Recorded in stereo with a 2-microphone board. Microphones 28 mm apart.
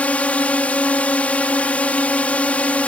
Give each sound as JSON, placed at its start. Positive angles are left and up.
{"t": 0.0, "sound": "a drone", "side_deg": 55}